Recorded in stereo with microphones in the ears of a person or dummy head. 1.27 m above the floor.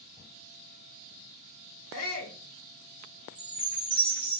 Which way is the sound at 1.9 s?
70° left (ahead or behind).